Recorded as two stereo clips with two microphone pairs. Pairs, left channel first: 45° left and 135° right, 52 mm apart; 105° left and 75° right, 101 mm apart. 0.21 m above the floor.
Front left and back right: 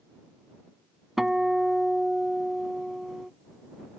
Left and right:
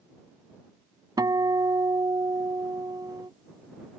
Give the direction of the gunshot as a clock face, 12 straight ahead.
No gunshot in this recording.